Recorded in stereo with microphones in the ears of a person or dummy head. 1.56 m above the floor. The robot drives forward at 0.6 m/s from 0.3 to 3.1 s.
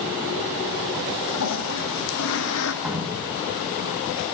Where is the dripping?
5° right (ahead or behind), 3 m.